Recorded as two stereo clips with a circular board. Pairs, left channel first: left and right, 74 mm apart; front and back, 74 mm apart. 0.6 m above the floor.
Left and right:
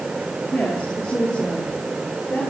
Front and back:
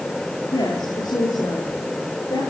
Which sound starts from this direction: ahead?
A woman speaking, at 0.5 s.